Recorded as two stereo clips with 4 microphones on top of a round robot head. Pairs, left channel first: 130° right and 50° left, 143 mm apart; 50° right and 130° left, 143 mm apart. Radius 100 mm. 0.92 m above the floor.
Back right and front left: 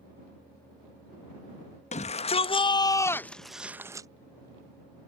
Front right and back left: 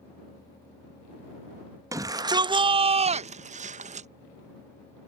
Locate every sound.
1.9 s a shout: 165° right; by 4.1 s 110° left